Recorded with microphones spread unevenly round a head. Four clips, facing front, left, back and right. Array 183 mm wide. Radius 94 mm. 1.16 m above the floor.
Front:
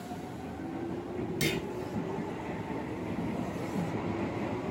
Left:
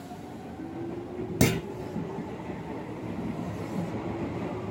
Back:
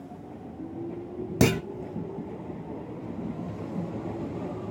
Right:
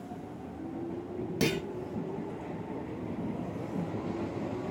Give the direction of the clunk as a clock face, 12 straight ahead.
6 o'clock.